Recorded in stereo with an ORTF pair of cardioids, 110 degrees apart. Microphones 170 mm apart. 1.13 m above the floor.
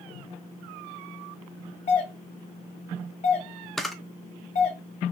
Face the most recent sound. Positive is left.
turn(degrees=0)